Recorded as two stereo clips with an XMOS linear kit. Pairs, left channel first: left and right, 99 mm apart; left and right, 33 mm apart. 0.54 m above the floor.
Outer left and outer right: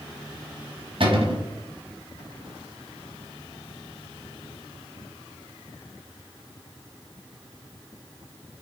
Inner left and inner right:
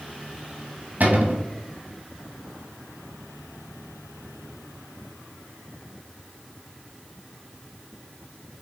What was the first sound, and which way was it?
A cupboard door, 60° right (ahead or behind).